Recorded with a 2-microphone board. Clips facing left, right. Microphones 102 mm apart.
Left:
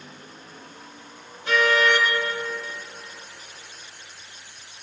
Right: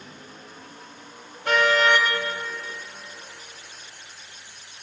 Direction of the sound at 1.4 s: 60° right (ahead or behind).